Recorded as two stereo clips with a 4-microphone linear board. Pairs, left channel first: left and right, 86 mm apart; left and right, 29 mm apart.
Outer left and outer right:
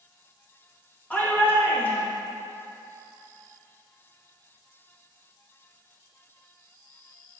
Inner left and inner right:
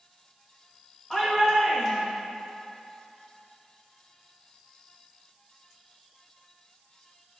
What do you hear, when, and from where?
1.1 s a shout: 20° left (ahead or behind), 2.5 m